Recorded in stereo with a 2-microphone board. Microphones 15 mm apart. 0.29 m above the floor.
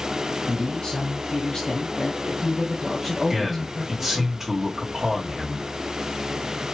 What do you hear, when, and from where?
0.5 s a man speaking: 50° left (ahead or behind), 2 m; by 4.3 s 15° right (ahead or behind), 1.8 m
3.3 s a man speaking: 20° right (ahead or behind), 1.8 m